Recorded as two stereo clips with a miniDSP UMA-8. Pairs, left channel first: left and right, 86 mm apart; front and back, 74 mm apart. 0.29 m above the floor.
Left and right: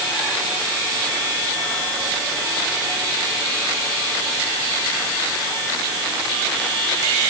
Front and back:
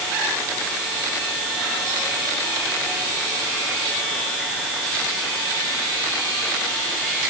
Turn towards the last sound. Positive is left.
No sound to turn to.